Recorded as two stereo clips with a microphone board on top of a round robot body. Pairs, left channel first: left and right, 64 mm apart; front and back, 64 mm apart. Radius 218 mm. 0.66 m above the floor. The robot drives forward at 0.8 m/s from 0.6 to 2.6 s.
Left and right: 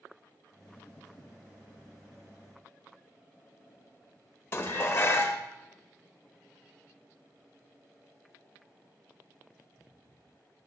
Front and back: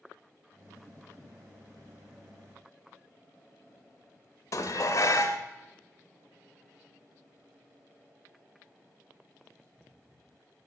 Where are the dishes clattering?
40° left, 0.8 m.